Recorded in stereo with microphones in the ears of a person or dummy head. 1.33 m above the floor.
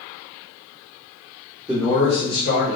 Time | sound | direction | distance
1.7 | a man speaking | 5° right (ahead or behind) | 0.9 m